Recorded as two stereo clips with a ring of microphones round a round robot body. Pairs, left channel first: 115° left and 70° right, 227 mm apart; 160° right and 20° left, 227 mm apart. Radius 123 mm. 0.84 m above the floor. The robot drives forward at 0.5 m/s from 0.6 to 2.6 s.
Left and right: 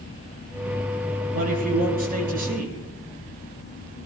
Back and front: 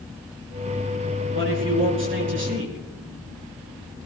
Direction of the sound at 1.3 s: 15° right.